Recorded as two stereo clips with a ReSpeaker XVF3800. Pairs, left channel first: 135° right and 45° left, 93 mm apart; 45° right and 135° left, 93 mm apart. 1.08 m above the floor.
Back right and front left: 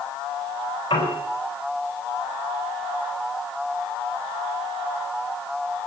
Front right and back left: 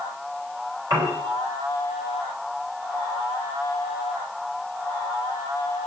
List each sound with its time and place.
0.9 s a piano: 170° right, 8 m